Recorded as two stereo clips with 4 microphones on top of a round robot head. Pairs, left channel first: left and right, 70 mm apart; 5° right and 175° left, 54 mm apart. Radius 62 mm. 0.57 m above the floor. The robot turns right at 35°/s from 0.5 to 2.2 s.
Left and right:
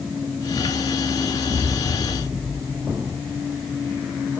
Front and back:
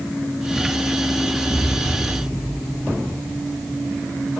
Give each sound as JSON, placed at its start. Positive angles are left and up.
{"t": 1.4, "sound": "an explosion", "azimuth_deg": -60, "distance_m": 4.5}